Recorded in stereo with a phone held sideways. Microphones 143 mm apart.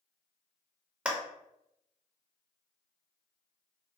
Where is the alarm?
No alarm in this recording.